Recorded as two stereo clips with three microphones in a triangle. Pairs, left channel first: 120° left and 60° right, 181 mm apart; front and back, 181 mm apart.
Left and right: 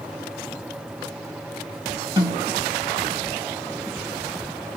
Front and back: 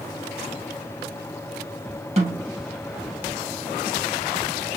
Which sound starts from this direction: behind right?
A snare drum, at 2.2 s.